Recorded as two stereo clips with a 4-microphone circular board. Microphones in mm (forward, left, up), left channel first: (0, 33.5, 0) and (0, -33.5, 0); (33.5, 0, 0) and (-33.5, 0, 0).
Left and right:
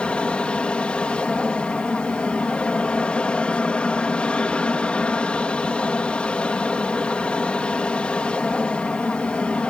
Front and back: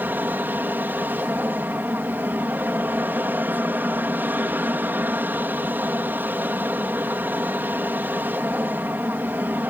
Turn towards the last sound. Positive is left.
turn(degrees=150)